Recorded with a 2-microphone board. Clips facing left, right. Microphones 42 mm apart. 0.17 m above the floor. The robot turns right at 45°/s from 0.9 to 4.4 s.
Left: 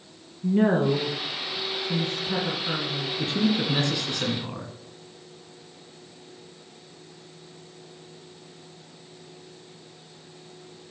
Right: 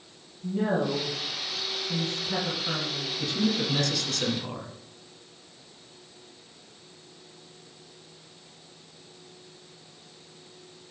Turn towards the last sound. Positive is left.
turn(degrees=165)